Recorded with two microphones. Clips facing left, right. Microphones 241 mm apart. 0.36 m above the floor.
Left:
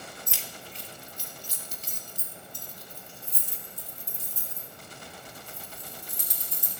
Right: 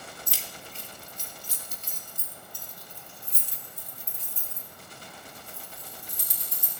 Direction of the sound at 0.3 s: 35° right (ahead or behind).